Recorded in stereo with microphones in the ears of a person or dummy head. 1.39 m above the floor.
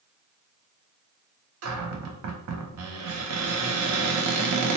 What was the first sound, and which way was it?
A cupboard door, 85° right.